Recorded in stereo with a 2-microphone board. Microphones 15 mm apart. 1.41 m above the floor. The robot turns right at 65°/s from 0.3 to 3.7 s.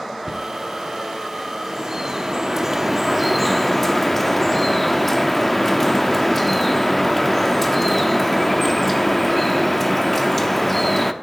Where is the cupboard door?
50° right (ahead or behind), 0.9 m; by 0.5 s 40° right (ahead or behind), 0.9 m.